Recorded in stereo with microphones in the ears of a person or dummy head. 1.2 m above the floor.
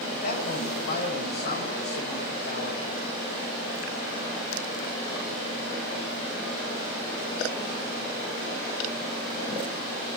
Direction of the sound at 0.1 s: 50° left (ahead or behind).